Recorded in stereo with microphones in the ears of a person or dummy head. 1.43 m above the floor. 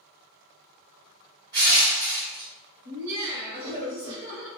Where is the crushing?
55° right (ahead or behind), 1.0 m.